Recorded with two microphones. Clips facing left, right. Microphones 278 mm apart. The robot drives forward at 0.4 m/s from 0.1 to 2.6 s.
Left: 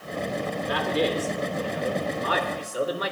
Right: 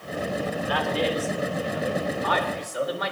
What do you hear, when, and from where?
0.7 s a man speaking: 45° left (ahead or behind), 4 m; by 3.1 s 35° left (ahead or behind), 4.5 m